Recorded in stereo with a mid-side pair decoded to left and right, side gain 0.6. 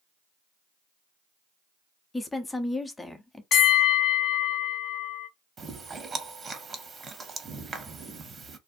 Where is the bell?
45° left, 0.8 m.